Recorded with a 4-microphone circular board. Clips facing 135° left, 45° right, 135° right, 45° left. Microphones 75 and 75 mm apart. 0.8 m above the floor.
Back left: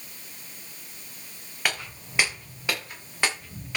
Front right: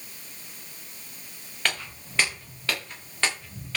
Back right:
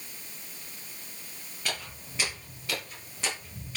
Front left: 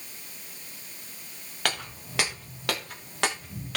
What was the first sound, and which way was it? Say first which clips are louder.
Footsteps: even, front left 5 dB; 55° left.